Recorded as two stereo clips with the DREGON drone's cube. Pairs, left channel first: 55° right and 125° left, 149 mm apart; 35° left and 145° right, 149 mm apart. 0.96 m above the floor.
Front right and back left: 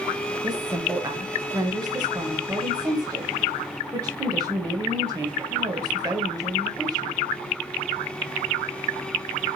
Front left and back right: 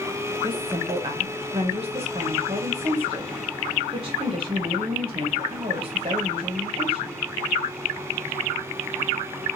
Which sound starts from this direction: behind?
A woman speaking, at 0.4 s.